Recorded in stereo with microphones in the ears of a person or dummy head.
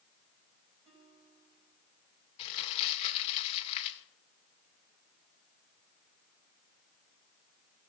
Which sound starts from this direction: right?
A guitar, at 0.8 s.